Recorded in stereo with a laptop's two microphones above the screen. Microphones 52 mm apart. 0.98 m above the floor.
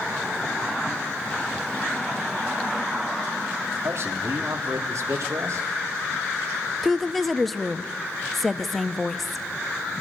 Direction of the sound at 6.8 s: Centre (ahead or behind).